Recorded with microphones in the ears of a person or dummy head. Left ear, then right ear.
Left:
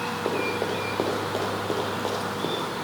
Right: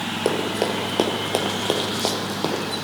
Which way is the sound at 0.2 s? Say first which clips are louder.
Right 5 dB; 50° right (ahead or behind).